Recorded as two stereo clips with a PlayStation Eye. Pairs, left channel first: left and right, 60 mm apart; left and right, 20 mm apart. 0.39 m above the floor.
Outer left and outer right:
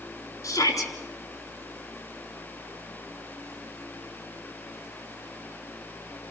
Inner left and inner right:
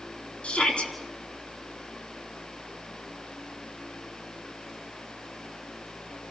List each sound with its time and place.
0.4 s a shout: 65° left (ahead or behind), 4.5 m